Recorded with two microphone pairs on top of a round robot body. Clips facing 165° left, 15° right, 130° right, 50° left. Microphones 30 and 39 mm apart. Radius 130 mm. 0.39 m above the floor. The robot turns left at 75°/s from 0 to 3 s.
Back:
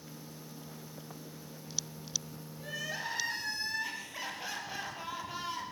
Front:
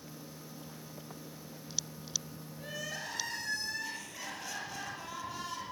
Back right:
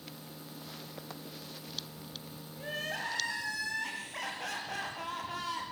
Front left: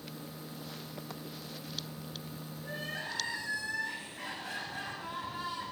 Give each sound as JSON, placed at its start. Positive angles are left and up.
{"t": 2.6, "sound": "crying", "azimuth_deg": -100, "distance_m": 6.5}